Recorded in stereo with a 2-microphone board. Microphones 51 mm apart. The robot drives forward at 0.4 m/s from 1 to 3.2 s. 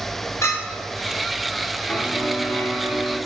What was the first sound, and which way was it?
A clink, 70° left (ahead or behind).